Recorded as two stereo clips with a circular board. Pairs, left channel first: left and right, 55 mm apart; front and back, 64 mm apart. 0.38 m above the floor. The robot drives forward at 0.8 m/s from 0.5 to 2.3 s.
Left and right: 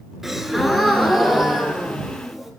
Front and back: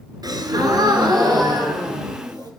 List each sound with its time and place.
0.2 s a gasp: 175° right, 2 m